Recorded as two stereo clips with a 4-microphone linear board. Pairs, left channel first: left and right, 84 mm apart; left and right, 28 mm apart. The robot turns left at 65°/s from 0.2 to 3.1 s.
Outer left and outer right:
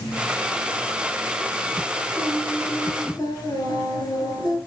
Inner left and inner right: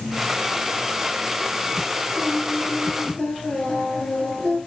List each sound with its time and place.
2.2 s singing: 170° right, 4 m; by 4.6 s 130° left, 4 m